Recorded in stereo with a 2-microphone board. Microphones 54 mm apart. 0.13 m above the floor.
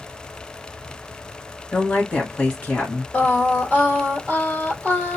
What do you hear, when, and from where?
1.7 s a woman speaking: 25° left (ahead or behind), 1.5 m
3.1 s singing: 20° left (ahead or behind), 2 m